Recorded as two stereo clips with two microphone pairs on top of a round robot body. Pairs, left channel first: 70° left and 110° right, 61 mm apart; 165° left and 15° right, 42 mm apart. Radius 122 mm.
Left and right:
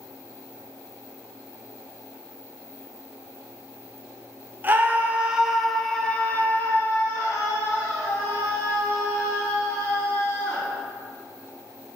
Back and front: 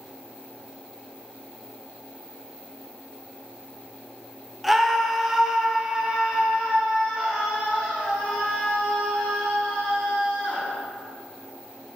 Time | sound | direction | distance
4.6 | a scream | 95° right | 1.2 m